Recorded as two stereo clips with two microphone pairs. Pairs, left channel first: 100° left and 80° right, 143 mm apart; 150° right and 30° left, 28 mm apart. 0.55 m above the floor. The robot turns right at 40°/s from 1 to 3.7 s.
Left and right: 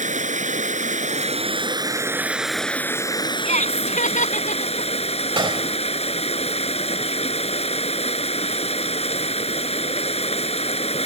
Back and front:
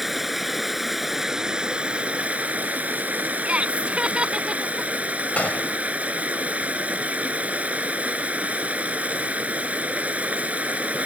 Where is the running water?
55° right; by 11.1 s 55° left.